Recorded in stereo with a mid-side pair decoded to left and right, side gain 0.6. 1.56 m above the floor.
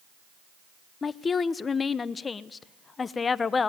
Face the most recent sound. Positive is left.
turn(degrees=30)